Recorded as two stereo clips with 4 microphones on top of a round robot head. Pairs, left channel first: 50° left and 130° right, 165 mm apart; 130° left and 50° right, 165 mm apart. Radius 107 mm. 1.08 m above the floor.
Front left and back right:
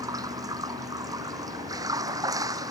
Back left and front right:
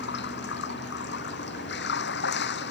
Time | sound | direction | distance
0.0 | running water | 155° left | ?